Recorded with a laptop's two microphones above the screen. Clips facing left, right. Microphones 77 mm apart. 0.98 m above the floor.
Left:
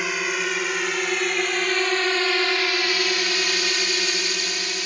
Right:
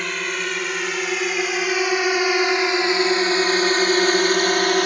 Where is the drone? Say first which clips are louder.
Even; 5° left (ahead or behind); by 4.9 s 55° right (ahead or behind).